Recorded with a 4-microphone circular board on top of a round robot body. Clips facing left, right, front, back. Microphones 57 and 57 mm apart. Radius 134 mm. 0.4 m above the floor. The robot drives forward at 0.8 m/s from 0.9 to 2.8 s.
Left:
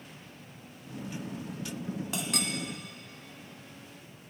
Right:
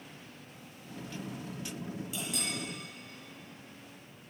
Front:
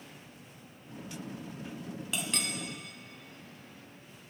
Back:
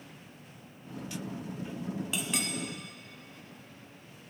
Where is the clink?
95° left, 1.6 m; by 2.5 s 105° left, 1.7 m.